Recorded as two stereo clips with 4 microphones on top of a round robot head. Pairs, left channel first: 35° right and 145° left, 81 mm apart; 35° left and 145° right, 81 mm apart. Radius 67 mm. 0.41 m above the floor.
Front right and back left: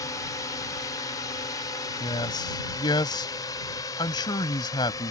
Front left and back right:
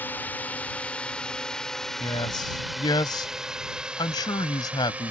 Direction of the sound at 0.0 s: 20° right.